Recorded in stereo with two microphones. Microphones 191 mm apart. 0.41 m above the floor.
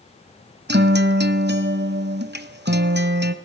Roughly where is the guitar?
Right.